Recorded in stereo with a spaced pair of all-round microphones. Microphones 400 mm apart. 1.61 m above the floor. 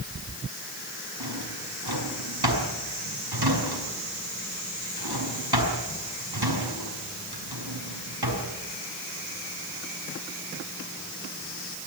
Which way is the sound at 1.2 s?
70° right (ahead or behind).